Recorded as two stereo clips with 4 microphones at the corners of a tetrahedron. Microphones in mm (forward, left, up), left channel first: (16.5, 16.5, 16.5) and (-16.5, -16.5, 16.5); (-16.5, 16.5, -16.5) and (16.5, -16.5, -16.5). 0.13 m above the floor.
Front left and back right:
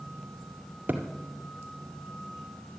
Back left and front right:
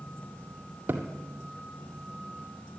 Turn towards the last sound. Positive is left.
turn(degrees=-85)